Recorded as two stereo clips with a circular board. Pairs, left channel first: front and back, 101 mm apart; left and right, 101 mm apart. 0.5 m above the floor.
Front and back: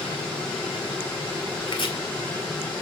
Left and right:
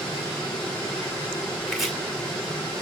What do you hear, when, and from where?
1.7 s chopping: straight ahead, 2.5 m